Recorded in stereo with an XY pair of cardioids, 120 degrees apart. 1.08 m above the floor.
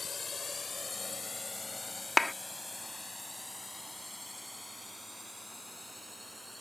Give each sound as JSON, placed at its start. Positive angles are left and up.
{"t": 0.0, "sound": "a drone", "azimuth_deg": 30}
{"t": 2.2, "sound": "a clap", "azimuth_deg": 15}